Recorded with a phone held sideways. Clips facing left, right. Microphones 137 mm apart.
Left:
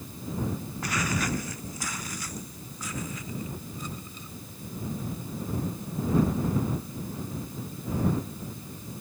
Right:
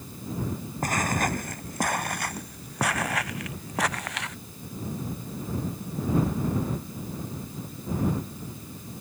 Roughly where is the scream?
I don't hear a scream.